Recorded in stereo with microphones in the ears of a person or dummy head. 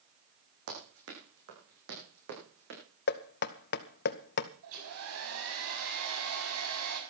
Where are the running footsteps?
70° right (ahead or behind), 8 m; by 2.8 s 55° right (ahead or behind), 8.5 m.